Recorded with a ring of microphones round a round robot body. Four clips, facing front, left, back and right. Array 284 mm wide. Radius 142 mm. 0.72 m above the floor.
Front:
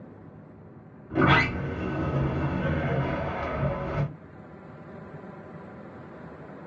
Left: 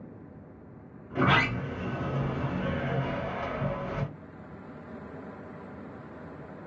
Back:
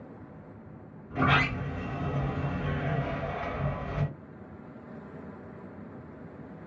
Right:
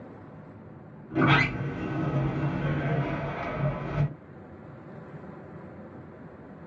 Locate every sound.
1.1 s a sliding door: 15° right, 1.3 m